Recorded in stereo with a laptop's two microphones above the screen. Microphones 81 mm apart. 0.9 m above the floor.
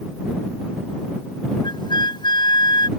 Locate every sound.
1.6 s a flute: 70° left (ahead or behind)